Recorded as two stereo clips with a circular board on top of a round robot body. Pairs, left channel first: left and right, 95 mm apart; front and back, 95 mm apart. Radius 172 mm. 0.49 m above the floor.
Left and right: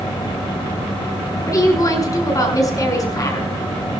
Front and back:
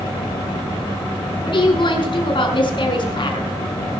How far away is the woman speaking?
About 6 m.